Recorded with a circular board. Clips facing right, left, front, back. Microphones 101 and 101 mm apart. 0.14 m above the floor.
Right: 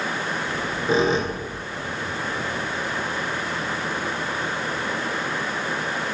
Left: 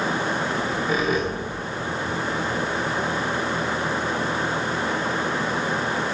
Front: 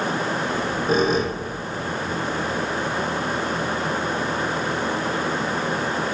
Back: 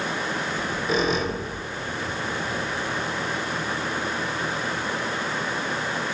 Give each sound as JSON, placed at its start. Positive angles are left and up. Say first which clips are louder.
{"t": 0.5, "sound": "a squeak", "louder": "even, front 4 dB", "azimuth_deg": -30, "distance_m": 1.5}